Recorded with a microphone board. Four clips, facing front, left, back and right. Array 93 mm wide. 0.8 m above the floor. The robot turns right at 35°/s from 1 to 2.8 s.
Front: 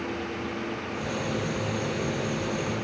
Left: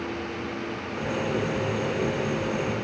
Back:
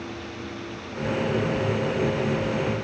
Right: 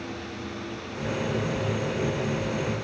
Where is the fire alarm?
I don't hear a fire alarm.